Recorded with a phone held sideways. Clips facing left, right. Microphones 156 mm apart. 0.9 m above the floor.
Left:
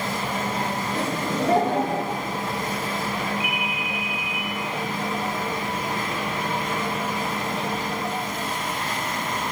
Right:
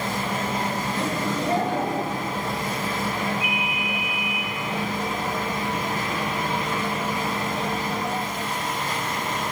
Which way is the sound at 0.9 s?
55° left (ahead or behind).